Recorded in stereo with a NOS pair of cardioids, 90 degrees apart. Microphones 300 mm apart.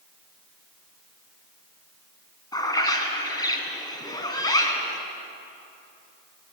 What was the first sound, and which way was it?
A bird, 15° left.